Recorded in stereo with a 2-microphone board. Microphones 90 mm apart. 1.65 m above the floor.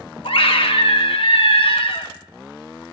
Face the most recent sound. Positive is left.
turn(degrees=70)  # may be behind; listen again after turning